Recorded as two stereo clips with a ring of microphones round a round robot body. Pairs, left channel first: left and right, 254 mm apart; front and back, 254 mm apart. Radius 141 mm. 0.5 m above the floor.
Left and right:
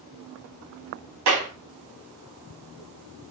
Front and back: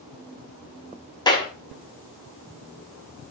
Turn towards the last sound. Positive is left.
turn(degrees=-75)